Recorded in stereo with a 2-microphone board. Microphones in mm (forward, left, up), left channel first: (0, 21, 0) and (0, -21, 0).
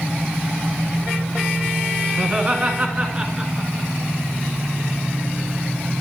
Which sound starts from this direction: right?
Laughter, at 2.2 s.